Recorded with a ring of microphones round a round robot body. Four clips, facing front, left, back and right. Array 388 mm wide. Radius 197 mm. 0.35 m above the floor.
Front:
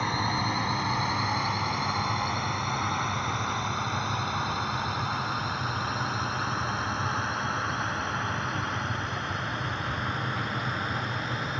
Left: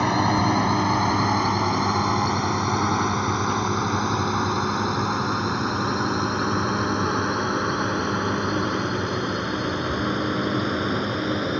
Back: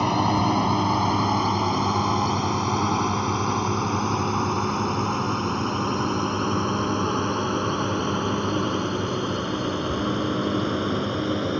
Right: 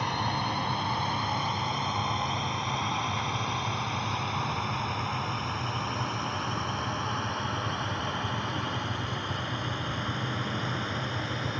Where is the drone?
135° left; by 11.6 s 145° left.